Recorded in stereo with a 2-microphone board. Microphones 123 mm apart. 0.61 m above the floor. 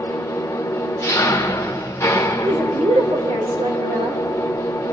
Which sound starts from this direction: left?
An engine running, at 0.0 s.